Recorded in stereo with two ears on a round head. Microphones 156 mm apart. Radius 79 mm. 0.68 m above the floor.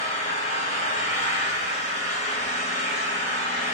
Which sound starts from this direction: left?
An engine running, at 0.0 s.